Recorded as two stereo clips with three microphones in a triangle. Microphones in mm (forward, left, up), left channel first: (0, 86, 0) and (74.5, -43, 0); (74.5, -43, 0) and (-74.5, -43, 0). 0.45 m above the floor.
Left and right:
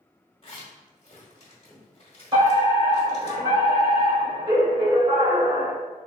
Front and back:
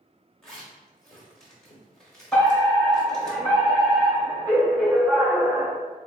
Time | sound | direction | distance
0.4 | a zipper | 85° left | 1.4 m
2.3 | a fire alarm | 70° right | 1.9 m